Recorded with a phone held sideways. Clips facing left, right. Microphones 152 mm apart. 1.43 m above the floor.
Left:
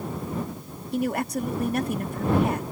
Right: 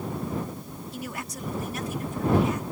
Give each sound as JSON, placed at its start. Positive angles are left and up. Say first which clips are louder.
{"t": 0.9, "sound": "a woman speaking", "louder": "left 13 dB", "side_deg": 60}